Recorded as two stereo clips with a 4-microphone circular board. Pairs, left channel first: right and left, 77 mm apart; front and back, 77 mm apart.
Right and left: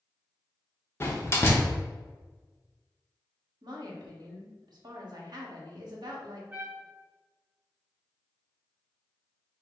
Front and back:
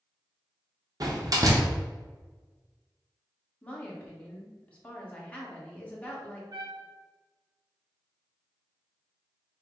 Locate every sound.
1.0 s a door slam: 145° right, 1.0 m
3.6 s a woman speaking: 70° left, 1.3 m
6.5 s a trumpet: 155° left, 1.2 m